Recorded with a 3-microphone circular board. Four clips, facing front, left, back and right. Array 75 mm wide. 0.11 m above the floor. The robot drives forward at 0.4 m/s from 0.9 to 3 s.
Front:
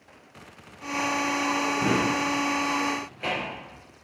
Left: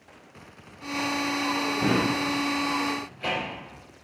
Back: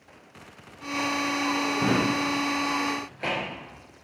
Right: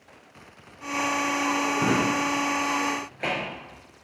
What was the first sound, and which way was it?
A drawer, 110° right.